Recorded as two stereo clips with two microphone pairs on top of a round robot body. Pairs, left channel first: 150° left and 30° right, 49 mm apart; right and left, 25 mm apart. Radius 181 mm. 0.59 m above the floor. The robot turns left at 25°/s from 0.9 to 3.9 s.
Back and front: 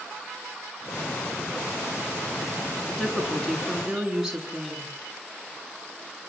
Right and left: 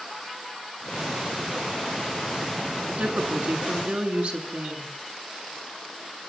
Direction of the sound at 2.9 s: 80° left.